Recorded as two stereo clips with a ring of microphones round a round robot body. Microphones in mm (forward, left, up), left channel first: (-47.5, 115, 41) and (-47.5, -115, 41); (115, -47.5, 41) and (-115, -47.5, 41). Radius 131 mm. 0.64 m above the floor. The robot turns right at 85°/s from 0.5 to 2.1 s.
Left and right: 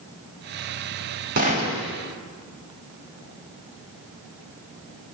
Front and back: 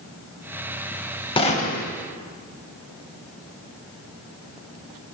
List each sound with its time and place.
1.4 s a gunshot: 55° right, 0.5 m; by 1.9 s 10° right, 0.5 m